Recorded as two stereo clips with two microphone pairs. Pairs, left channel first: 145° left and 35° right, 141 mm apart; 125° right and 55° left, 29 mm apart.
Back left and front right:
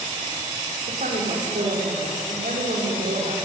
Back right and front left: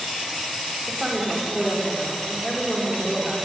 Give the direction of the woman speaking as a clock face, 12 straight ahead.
1 o'clock.